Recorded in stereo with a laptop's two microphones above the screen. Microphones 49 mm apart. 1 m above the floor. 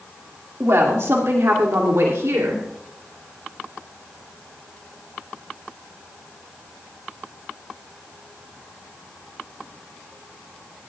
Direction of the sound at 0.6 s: 70° right (ahead or behind).